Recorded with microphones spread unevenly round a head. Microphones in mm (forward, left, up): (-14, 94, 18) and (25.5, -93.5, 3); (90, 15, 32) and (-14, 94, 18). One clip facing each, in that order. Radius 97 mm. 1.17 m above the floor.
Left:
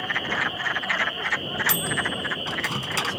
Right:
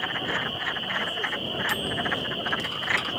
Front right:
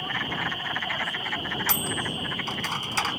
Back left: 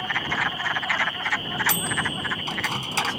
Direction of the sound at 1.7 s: 75° left.